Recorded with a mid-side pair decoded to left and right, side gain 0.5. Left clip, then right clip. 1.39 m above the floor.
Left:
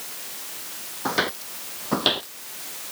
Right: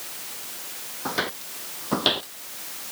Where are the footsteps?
20° left; by 2.3 s 5° right.